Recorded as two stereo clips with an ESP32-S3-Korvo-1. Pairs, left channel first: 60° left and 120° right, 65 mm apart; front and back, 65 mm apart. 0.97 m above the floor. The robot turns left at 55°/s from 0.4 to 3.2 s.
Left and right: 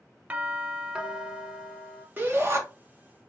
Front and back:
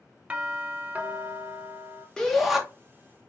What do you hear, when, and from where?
0.3 s a doorbell: 145° right, 0.6 m; by 2.1 s 125° left, 0.6 m
2.2 s a shout: 75° right, 1.2 m; by 2.6 s 100° right, 1.2 m